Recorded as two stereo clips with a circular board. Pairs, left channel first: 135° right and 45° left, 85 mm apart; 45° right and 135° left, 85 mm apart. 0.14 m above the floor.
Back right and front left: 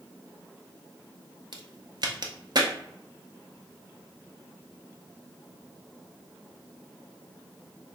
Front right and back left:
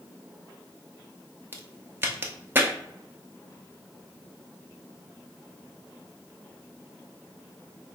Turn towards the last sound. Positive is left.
turn(degrees=70)